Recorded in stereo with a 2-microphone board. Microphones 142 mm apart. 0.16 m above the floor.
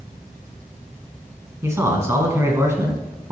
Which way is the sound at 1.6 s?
20° right (ahead or behind).